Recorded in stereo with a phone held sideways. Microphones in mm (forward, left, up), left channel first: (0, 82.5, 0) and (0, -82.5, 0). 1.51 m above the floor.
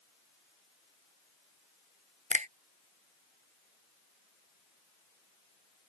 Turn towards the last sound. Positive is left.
turn(degrees=-45)  # may be behind; listen again after turning